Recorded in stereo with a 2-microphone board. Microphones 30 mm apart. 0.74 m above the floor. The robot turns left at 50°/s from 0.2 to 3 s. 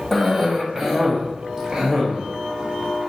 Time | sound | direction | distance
0.1 | a cough | 5° left (ahead or behind) | 1.0 m